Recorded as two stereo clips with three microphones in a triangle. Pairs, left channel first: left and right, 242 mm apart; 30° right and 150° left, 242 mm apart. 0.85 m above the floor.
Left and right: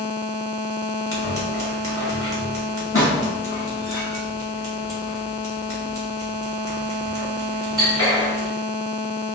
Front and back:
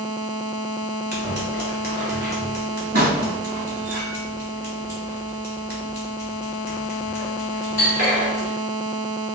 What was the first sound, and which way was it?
Scissors, 105° left.